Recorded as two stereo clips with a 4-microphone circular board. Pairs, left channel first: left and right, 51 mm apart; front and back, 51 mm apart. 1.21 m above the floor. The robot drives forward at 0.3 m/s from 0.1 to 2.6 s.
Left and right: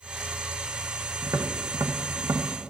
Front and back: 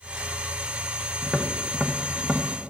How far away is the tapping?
About 0.8 m.